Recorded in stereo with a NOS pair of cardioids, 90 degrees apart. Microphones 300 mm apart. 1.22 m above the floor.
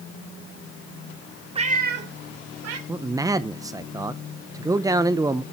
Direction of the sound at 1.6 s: 20° right.